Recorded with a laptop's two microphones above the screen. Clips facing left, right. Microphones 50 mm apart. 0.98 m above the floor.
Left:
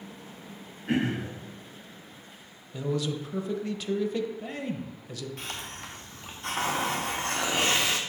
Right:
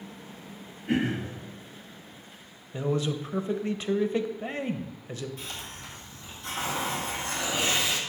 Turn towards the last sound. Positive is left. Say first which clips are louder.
# left 2 dB
turn(degrees=55)  # may be behind; listen again after turning